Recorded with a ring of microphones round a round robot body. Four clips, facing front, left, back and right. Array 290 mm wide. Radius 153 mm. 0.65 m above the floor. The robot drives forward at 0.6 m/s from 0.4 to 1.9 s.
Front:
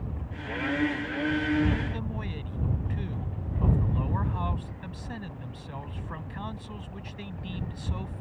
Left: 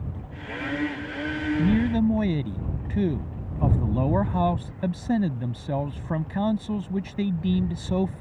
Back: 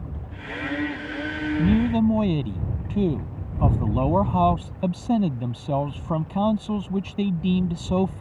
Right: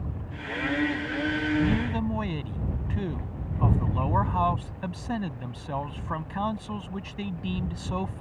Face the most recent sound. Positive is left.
turn(degrees=150)